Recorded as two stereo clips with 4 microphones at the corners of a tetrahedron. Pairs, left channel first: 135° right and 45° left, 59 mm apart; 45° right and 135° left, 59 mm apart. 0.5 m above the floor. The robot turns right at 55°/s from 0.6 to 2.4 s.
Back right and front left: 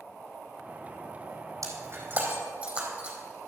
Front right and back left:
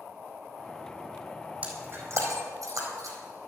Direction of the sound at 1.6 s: 70° left.